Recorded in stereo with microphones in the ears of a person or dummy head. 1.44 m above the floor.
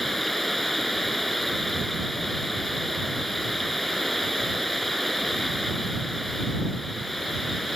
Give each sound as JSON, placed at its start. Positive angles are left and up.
{"t": 0.0, "sound": "running water", "side_deg": 0}